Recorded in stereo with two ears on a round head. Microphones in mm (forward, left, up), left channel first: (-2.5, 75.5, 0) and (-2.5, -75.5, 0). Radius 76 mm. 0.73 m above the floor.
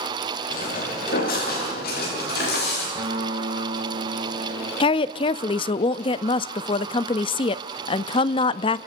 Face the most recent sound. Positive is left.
turn(degrees=30)  # may be behind; listen again after turning